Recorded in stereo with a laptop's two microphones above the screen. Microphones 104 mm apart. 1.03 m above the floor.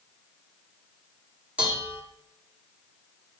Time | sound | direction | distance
1.6 | dishes clattering | 15° right (ahead or behind) | 1.5 m